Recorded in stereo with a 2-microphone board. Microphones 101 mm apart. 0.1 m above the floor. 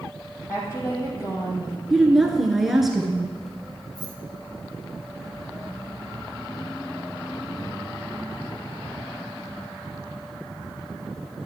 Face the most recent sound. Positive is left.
turn(degrees=0)  # may be behind; listen again after turning